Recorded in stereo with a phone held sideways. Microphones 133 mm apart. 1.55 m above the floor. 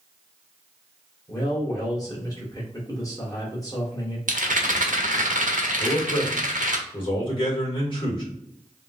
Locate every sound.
1.3 s a man speaking: 25° left (ahead or behind), 1.3 m
4.3 s a rattle: 75° right (ahead or behind), 0.8 m
5.8 s a man speaking: 40° left (ahead or behind), 2 m